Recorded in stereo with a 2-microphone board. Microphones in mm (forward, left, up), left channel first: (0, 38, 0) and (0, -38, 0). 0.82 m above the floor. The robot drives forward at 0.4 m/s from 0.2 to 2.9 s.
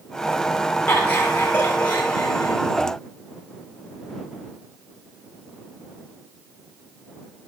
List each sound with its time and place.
0.9 s laughter: 25° left (ahead or behind), 6.5 m